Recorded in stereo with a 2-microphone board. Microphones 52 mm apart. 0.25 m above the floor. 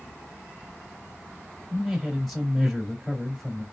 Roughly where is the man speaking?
Centre.